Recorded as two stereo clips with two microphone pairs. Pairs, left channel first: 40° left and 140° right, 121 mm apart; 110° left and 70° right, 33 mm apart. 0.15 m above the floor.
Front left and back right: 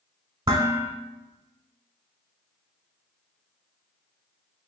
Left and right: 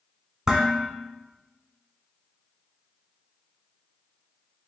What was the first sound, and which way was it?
Dishes clattering, 130° right.